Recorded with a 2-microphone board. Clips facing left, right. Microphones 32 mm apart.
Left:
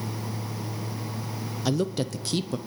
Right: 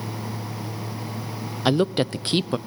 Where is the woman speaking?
40° right (ahead or behind), 0.6 m.